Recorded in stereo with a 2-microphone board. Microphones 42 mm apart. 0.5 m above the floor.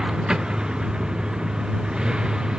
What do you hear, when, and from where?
0.0 s a vehicle: 20° right (ahead or behind)